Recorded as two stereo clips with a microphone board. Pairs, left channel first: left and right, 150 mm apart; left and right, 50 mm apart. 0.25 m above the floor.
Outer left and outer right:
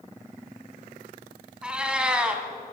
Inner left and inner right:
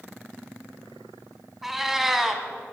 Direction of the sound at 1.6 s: 5° right (ahead or behind).